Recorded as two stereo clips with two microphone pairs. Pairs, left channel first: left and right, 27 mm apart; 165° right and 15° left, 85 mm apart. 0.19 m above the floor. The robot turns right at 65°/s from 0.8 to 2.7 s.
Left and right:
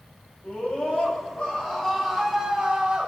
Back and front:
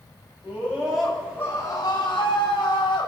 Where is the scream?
90° left, 9 m; by 3.1 s 145° right, 9 m.